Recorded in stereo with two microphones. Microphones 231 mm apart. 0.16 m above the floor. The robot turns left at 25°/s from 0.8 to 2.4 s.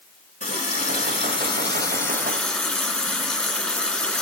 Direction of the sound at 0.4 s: 45° left.